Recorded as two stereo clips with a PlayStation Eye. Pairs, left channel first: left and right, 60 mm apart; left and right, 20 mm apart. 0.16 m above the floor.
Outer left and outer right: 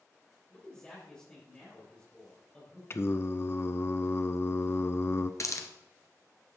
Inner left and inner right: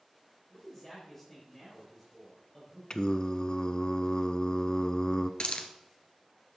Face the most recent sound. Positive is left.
turn(degrees=60)  # may be behind; listen again after turning